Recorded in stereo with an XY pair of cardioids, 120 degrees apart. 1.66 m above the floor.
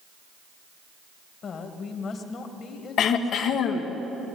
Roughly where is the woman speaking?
Ahead left.